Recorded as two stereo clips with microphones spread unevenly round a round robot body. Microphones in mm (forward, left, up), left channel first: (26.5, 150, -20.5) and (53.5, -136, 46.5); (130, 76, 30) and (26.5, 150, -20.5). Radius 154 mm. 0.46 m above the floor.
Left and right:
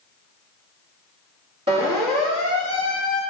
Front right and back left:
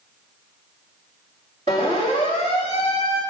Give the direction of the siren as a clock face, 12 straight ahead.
5 o'clock.